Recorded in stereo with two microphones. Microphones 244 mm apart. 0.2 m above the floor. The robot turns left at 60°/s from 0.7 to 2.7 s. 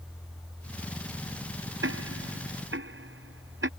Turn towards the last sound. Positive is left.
turn(degrees=-60)  # may be behind; listen again after turning